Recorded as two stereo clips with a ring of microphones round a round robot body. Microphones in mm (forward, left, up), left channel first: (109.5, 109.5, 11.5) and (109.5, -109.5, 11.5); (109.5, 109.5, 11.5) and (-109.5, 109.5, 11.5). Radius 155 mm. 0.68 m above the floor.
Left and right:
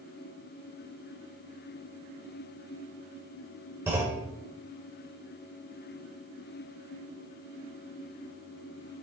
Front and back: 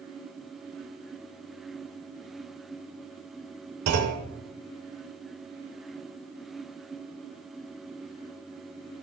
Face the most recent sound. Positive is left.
turn(degrees=-170)